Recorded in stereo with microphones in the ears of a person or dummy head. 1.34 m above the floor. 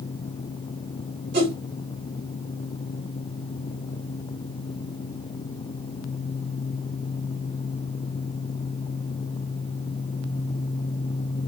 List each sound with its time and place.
1.3 s a whoosh: 60° right (ahead or behind), 2.5 m